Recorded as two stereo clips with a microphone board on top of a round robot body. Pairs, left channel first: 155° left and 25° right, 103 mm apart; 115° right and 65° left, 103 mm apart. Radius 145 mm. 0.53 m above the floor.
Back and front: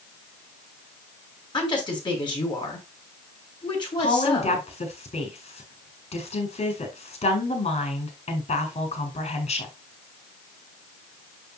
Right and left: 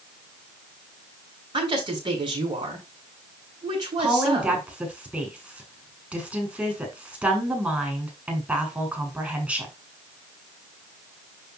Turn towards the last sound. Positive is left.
turn(degrees=145)